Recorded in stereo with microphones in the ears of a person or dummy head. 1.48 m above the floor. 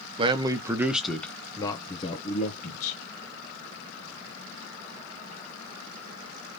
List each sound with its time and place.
0.2 s a man speaking: 30° right (ahead or behind), 1.1 m; by 3.0 s 50° left (ahead or behind), 1.6 m